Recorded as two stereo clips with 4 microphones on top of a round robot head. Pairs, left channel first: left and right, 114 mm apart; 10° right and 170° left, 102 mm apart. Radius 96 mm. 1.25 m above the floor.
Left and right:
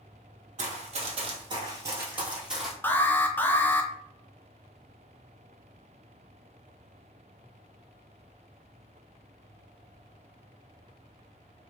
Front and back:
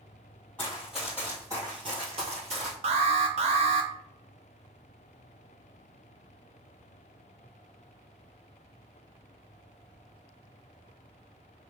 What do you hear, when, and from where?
0.6 s running footsteps: 90° right, 1.8 m; by 2.7 s straight behind, 1.8 m
2.8 s an alarm: 160° left, 0.5 m